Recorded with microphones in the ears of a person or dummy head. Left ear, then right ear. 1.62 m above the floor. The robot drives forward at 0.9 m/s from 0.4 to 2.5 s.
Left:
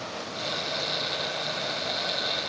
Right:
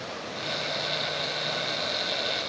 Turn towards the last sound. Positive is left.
No sound to turn to.